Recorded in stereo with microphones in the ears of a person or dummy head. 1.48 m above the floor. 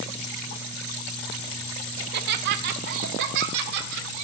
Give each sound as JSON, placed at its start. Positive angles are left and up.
{"t": 2.0, "sound": "laughter", "side_deg": -50, "distance_m": 1.0}